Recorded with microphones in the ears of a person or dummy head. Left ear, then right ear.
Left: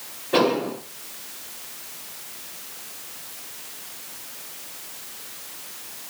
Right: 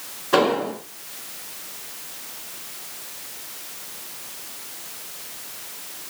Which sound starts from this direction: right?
An explosion, at 0.3 s.